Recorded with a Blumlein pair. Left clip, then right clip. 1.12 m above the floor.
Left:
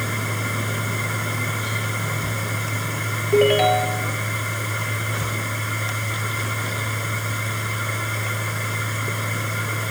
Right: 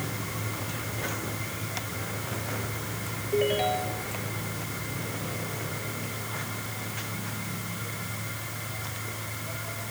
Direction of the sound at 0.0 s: 60° left.